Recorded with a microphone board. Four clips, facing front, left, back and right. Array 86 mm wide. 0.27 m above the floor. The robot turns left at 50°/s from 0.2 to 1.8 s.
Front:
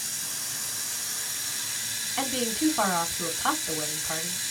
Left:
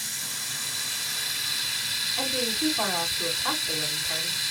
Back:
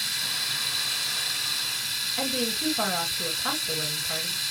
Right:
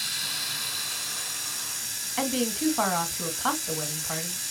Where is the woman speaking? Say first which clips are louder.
Right 3 dB, front 3 dB; 50° right, 2 m.